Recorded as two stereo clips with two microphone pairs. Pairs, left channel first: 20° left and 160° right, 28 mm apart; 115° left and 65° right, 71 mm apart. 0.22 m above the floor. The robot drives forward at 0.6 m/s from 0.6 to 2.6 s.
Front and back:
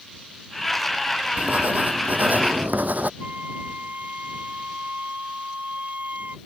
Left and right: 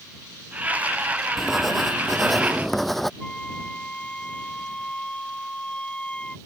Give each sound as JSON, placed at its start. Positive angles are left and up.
{"t": 1.4, "sound": "writing", "azimuth_deg": -155}
{"t": 3.2, "sound": "a flute", "azimuth_deg": -170}